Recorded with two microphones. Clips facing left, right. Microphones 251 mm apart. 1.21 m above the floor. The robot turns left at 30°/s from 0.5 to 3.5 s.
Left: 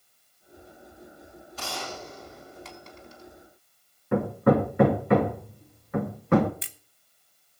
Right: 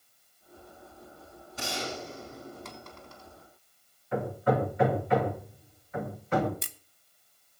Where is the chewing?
I don't hear chewing.